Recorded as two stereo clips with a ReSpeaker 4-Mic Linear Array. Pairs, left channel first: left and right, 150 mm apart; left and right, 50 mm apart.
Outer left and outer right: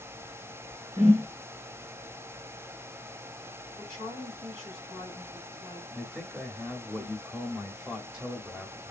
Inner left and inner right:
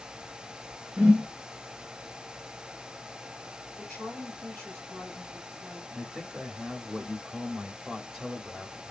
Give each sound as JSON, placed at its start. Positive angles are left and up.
{"t": 1.0, "sound": "a whoosh", "side_deg": -20, "distance_m": 2.0}
{"t": 3.8, "sound": "a woman speaking", "side_deg": 10, "distance_m": 2.5}
{"t": 5.9, "sound": "a man speaking", "side_deg": -5, "distance_m": 0.9}